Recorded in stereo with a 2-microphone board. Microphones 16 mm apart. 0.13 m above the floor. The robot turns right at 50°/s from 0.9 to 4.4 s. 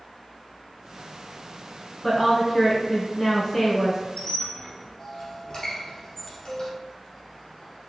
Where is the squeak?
50° left (ahead or behind), 1.6 m; by 6.7 s 55° left (ahead or behind), 1.6 m.